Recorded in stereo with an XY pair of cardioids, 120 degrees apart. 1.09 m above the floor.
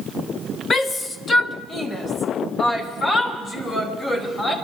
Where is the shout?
25° left, 0.9 m; by 4.5 s 35° left, 4.5 m.